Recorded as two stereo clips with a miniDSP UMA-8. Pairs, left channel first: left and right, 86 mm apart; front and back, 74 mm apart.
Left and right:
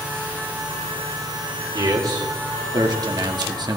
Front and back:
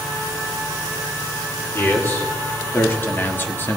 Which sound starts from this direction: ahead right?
A man speaking, at 1.7 s.